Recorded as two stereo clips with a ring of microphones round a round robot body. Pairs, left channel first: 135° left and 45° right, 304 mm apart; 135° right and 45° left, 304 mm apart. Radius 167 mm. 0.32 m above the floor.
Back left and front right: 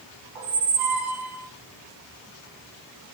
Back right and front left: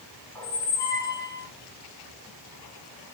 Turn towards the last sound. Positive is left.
turn(degrees=-55)